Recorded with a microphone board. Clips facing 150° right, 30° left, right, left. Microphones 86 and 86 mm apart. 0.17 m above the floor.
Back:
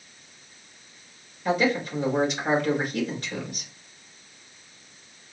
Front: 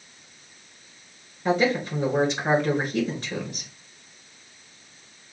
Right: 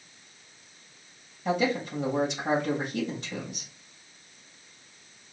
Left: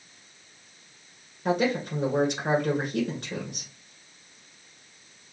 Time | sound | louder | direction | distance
1.4 | a man speaking | front 1 dB, left 2 dB | 85° left | 2 m